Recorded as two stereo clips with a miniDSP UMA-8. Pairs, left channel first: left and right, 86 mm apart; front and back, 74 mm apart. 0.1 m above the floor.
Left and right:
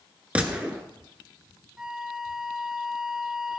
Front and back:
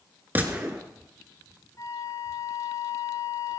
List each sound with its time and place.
0.3 s a gunshot: 150° right, 1.1 m
1.8 s a flute: 10° right, 0.8 m